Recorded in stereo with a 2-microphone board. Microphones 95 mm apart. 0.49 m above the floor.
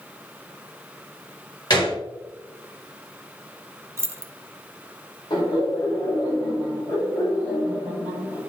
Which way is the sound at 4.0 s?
30° right (ahead or behind).